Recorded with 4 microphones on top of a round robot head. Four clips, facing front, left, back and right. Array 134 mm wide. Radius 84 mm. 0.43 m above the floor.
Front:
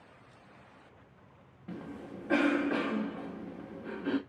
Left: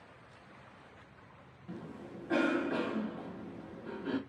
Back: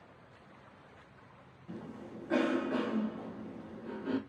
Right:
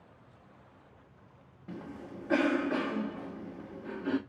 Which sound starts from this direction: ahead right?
A cough, at 1.7 s.